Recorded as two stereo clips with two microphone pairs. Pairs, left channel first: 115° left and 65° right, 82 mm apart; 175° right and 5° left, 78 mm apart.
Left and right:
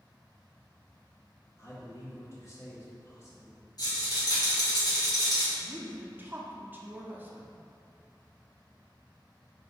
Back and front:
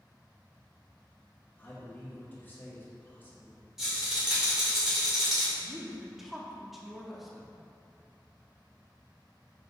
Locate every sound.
1.6 s a man speaking: 140° left, 1.2 m
3.8 s a rattle: 90° left, 1.6 m
5.6 s a woman speaking: 85° right, 0.6 m